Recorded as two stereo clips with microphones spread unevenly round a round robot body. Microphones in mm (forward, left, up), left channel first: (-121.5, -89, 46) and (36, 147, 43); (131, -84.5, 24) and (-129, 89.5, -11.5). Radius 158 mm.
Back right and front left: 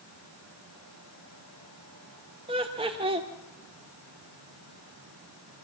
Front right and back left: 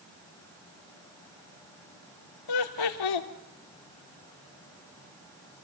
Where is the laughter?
15° right, 1.6 m.